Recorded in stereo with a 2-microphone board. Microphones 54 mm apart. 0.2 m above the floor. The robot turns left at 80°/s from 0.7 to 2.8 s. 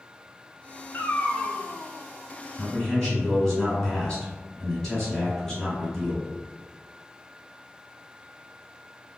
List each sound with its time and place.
0.9 s a cat meowing: 55° left, 0.5 m; by 1.6 s 5° left, 0.5 m
2.6 s a man speaking: 15° left (ahead or behind), 1.6 m; by 6.3 s 10° left (ahead or behind), 1.6 m